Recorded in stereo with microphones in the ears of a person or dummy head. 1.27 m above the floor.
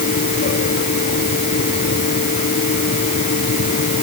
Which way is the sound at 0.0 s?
40° left (ahead or behind).